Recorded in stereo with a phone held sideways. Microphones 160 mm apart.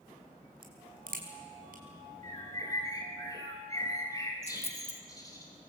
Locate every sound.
0.6 s a crack: 75° right (ahead or behind), 5 m
2.2 s a bird: 25° left (ahead or behind), 5 m
4.5 s a dropped coin: 45° left (ahead or behind), 0.9 m